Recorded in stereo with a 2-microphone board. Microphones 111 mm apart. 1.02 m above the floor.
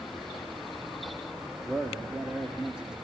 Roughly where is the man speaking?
Centre.